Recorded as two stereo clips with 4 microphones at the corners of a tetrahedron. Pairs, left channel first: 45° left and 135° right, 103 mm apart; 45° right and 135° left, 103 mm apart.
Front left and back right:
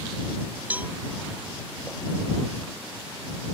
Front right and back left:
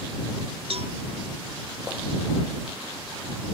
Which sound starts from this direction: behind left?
A cowbell, at 0.7 s.